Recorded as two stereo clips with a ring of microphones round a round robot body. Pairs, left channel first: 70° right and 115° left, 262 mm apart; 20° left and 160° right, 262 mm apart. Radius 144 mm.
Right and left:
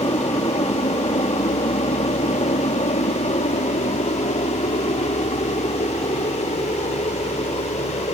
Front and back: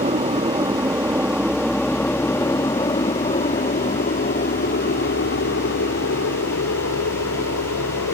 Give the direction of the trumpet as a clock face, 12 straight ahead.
I don't hear a trumpet.